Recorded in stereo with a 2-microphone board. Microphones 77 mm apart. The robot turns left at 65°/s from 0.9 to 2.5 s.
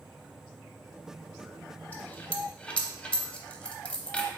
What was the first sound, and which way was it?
A dropped coin, 20° left (ahead or behind).